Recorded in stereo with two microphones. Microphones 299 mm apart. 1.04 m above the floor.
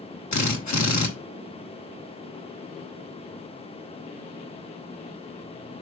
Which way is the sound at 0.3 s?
65° left (ahead or behind).